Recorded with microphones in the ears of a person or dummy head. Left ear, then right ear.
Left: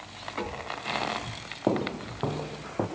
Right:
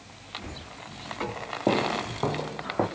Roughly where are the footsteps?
Centre.